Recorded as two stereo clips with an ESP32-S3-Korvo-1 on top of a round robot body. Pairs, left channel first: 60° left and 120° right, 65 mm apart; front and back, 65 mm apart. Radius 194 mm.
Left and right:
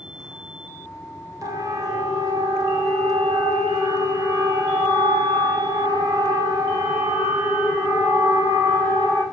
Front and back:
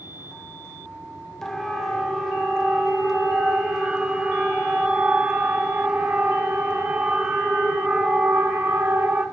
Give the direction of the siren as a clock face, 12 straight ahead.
3 o'clock.